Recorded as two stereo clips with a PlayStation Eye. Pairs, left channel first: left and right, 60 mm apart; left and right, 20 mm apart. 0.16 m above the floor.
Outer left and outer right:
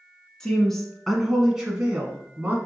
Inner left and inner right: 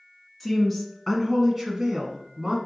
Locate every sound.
0.4 s a woman speaking: 15° left (ahead or behind), 1.4 m; by 2.5 s 25° right (ahead or behind), 1.2 m